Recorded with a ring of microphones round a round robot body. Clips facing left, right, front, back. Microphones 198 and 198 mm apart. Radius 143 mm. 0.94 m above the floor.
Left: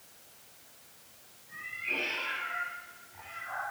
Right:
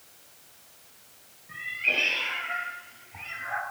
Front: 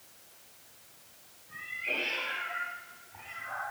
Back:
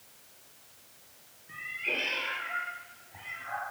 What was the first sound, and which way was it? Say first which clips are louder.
A cat meowing: right 5 dB, back 2 dB; 130° right.